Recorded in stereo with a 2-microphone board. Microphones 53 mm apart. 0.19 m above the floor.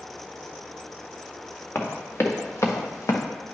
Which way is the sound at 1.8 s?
50° left (ahead or behind).